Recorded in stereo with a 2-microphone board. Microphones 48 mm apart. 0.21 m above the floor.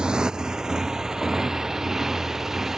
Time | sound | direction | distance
0.0 | a motorcycle | 15° right (ahead or behind) | ?